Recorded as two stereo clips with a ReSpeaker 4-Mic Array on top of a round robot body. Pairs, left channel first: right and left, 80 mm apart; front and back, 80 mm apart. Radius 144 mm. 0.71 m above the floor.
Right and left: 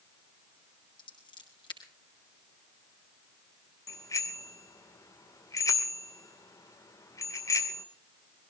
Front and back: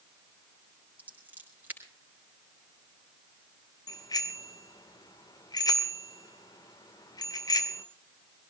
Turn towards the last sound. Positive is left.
turn(degrees=-40)